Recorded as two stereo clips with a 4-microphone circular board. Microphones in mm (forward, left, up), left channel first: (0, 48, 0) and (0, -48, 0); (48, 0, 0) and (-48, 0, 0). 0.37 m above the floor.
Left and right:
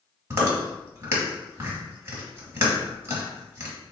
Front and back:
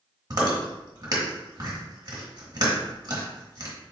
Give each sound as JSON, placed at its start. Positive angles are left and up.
{"t": 0.3, "sound": "chewing", "azimuth_deg": -145, "distance_m": 1.1}